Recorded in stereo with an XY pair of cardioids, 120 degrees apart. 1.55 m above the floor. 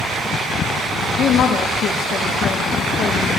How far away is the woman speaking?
About 1.3 m.